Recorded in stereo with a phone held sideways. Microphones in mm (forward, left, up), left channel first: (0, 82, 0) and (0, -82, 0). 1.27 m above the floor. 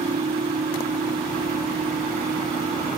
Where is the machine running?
80° right.